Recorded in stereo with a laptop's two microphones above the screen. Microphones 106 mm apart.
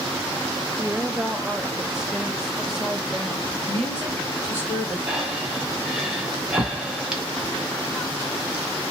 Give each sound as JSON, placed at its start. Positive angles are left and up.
{"t": 0.8, "sound": "a woman speaking", "side_deg": -5, "distance_m": 0.8}
{"t": 3.7, "sound": "a woman speaking", "side_deg": 20, "distance_m": 1.8}
{"t": 5.1, "sound": "breathing", "side_deg": -5, "distance_m": 0.7}